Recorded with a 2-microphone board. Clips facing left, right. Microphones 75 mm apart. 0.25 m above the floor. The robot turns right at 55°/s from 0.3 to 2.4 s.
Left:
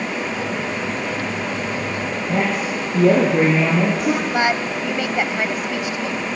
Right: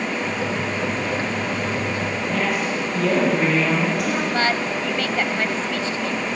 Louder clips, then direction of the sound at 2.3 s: Left 3 dB; 35° left (ahead or behind).